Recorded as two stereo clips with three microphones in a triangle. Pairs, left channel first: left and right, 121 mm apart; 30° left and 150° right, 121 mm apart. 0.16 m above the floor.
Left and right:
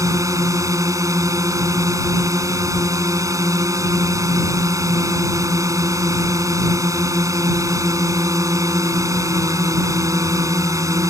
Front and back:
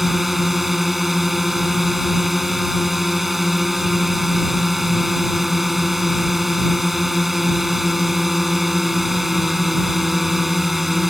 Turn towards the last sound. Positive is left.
turn(degrees=-65)